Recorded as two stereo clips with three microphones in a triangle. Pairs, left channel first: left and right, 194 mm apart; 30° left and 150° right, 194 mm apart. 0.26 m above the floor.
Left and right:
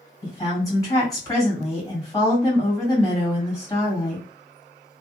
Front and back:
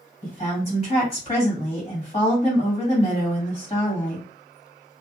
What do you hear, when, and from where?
0.2 s a woman speaking: 35° left, 1.7 m